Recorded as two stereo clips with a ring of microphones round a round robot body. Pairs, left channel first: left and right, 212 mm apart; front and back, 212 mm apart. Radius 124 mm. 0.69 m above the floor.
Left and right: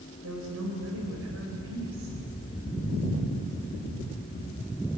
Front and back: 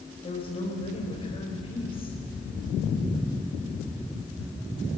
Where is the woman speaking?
65° right, 4 m.